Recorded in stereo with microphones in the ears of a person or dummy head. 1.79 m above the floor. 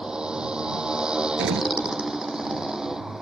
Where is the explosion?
65° right (ahead or behind).